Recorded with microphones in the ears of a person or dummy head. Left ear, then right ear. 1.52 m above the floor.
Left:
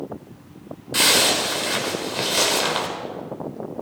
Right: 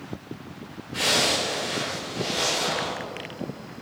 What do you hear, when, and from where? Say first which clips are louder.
0.9 s a zipper: left 5 dB; 50° left (ahead or behind), 2 m